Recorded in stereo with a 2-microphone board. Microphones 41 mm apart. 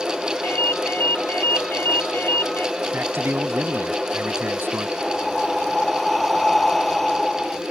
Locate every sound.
0.4 s a ringtone: 65° left (ahead or behind)
2.9 s a man speaking: 70° right (ahead or behind)
5.0 s breathing: 5° left (ahead or behind)